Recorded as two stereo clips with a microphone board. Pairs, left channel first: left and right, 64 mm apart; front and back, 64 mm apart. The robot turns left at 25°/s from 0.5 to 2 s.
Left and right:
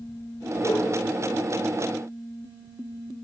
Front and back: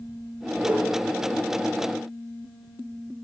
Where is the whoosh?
115° left, 7.5 m; by 0.9 s 110° left, 7.5 m.